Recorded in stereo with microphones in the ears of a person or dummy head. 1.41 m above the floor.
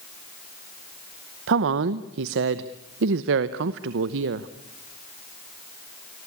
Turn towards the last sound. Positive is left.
turn(degrees=-70)  # may be behind; listen again after turning